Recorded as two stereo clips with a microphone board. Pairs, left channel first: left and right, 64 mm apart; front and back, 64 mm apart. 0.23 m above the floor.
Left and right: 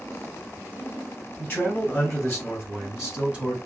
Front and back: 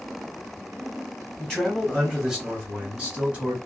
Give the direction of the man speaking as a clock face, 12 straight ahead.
9 o'clock.